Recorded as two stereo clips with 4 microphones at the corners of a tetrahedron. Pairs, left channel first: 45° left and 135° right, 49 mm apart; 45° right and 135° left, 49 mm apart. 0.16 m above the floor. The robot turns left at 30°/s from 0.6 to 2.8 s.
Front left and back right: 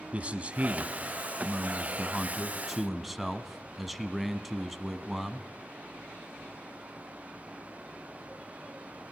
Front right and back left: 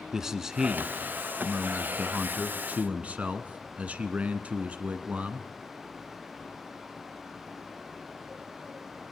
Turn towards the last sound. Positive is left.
turn(degrees=135)